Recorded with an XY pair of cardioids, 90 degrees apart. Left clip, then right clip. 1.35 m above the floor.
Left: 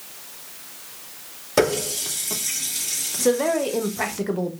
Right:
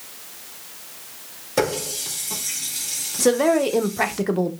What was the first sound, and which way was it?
A running tap, 35° left.